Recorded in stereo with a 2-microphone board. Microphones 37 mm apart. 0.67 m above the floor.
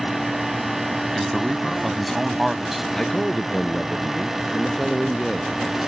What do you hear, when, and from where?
1.1 s a man speaking: 5° left (ahead or behind); by 2.8 s 10° right (ahead or behind)
2.9 s a man speaking: 5° left (ahead or behind)